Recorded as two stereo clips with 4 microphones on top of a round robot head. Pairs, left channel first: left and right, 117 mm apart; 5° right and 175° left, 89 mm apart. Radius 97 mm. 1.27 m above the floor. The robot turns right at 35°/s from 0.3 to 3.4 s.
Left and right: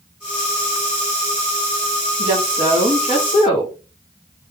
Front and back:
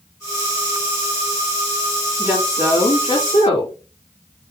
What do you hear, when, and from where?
2.2 s a woman speaking: 80° right, 3.5 m; by 3.8 s 35° right, 3.5 m